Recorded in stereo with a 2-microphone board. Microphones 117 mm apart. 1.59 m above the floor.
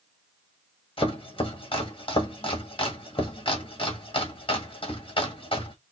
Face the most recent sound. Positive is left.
turn(degrees=50)  # may be behind; listen again after turning